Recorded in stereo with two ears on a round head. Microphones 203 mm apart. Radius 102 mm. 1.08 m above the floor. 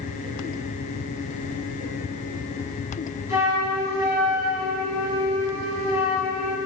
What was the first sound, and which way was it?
A flute, 15° right (ahead or behind).